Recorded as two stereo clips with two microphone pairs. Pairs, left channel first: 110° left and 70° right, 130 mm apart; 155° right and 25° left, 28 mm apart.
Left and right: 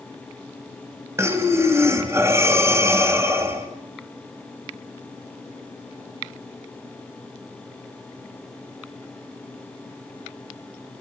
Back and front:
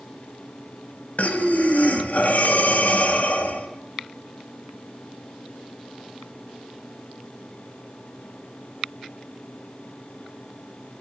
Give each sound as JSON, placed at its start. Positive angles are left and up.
{"t": 1.2, "sound": "breathing", "azimuth_deg": -140, "distance_m": 2.5}